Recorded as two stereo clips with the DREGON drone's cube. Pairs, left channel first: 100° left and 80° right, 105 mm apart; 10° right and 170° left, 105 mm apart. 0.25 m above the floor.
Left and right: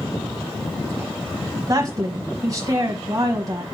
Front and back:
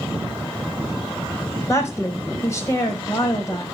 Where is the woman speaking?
60° right, 1.2 m.